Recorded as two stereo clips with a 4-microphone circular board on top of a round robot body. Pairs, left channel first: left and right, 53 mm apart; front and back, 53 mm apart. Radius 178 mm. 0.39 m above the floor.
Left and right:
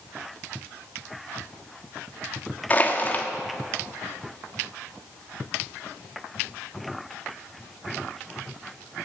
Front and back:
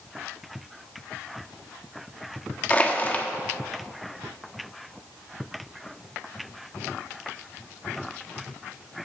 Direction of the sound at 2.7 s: 50° left.